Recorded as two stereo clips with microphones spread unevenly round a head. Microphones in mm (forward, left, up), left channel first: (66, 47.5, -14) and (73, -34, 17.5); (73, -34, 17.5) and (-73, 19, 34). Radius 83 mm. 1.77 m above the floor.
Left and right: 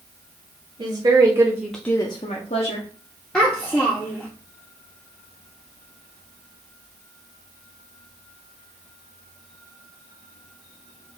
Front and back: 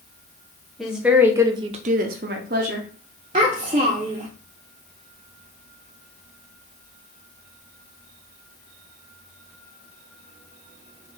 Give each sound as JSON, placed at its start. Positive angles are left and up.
{"t": 0.8, "sound": "a woman speaking", "azimuth_deg": -115, "distance_m": 1.2}
{"t": 3.3, "sound": "a child speaking", "azimuth_deg": -165, "distance_m": 0.8}